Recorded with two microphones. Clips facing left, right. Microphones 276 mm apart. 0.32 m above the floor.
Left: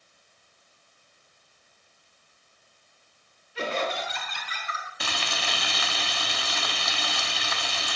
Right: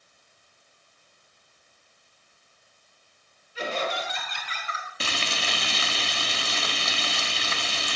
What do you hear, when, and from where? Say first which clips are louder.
3.5 s laughter: left 1 dB; 70° left (ahead or behind), 3 m; by 4.9 s 40° left (ahead or behind), 2.5 m
5.0 s frying: right 2 dB; 30° right (ahead or behind), 0.6 m